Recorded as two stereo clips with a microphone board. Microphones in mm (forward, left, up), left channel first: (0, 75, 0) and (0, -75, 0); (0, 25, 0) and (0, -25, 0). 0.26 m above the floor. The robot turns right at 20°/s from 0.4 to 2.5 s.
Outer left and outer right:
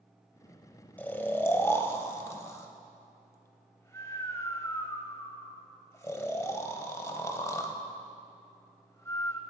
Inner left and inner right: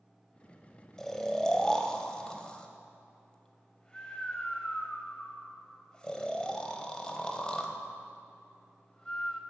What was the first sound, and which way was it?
Snoring, 10° left (ahead or behind).